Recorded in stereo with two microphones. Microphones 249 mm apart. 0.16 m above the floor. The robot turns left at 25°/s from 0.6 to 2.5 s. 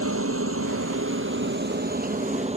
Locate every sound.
0.0 s a helicopter: 65° right (ahead or behind); by 2.6 s 25° right (ahead or behind)